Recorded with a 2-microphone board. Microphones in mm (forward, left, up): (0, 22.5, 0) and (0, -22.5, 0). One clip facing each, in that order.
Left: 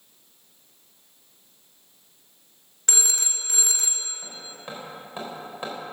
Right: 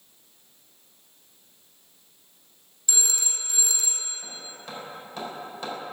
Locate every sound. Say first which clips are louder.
2.9 s a phone ringing: left 2 dB; 60° left (ahead or behind), 1.0 m
4.2 s hammering: left 1 dB; 25° left (ahead or behind), 3.5 m